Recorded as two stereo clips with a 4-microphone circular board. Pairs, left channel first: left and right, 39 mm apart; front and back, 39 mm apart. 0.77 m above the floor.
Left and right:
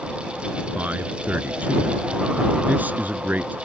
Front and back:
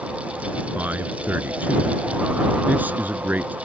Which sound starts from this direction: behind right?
A man speaking, at 0.8 s.